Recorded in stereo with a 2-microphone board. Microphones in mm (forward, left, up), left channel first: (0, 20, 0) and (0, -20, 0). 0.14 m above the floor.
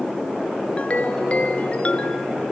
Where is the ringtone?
35° left (ahead or behind), 1.0 m.